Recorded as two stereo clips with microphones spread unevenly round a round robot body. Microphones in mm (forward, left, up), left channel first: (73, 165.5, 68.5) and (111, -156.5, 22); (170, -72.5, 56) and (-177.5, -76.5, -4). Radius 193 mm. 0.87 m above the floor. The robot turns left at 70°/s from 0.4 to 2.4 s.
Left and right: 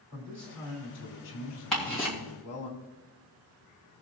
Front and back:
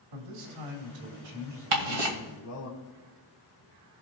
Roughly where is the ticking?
Behind.